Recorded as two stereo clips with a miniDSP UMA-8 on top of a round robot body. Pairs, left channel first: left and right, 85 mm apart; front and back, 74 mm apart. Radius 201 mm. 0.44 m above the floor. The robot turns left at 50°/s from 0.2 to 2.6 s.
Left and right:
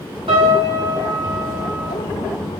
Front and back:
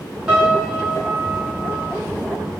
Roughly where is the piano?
Right.